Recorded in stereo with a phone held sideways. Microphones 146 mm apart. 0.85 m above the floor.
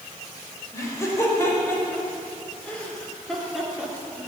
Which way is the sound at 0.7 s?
20° left (ahead or behind).